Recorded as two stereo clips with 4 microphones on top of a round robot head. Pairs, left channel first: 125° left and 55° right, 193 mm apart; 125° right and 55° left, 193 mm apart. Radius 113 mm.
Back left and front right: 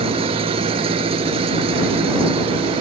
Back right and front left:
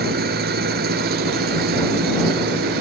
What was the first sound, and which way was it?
An engine running, 10° left.